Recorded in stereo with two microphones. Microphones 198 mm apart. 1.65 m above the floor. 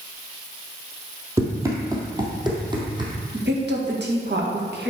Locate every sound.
1.4 s running footsteps: 15° right (ahead or behind), 1.8 m; by 3.1 s 25° right (ahead or behind), 2.5 m
3.3 s a woman speaking: 60° right (ahead or behind), 1.9 m